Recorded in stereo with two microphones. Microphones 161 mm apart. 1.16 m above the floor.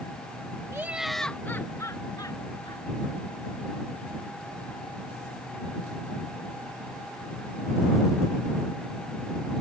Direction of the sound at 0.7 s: 20° right (ahead or behind).